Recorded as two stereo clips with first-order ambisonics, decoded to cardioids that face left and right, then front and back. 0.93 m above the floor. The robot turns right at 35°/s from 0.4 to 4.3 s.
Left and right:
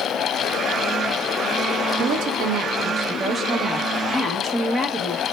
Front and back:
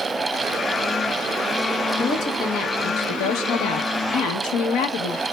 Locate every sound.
2.0 s a woman speaking: 65° right, 0.8 m; by 5.2 s 15° left, 0.8 m